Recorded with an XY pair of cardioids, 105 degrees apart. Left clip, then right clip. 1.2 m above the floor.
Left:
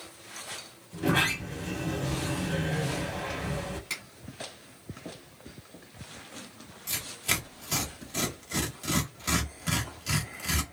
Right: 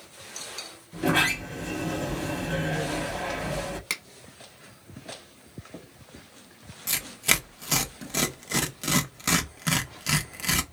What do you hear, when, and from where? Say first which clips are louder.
0.9 s a sliding door: right 3 dB; 35° right, 1.1 m
3.9 s a finger snap: right 5 dB; 70° right, 1.2 m
6.9 s tearing paper: right 5 dB; 55° right, 0.8 m